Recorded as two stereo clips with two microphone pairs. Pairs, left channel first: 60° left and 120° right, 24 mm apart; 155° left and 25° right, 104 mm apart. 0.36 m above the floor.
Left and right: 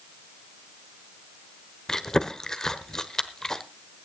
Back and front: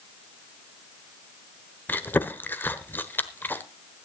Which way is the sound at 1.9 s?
110° left.